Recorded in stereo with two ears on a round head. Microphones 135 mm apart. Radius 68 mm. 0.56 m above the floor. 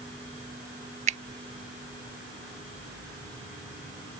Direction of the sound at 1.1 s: 45° right (ahead or behind).